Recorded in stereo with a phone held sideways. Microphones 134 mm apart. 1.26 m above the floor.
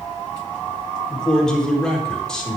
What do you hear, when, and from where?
1.1 s a man speaking: 5° left (ahead or behind), 4 m